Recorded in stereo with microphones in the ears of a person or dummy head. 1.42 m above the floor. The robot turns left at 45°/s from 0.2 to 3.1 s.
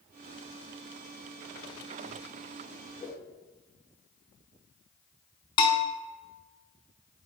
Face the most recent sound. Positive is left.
turn(degrees=30)  # may be behind; listen again after turning